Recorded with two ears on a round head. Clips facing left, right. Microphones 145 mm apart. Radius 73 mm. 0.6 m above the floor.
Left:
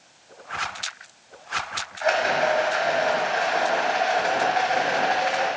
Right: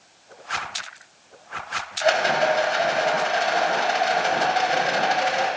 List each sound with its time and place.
2.0 s a rattle: 40° right (ahead or behind), 1.3 m